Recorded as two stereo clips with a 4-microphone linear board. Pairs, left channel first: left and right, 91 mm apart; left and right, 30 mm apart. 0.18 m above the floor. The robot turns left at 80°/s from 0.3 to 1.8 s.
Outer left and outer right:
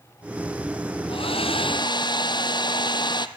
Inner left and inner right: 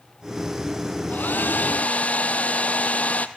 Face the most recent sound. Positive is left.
turn(degrees=55)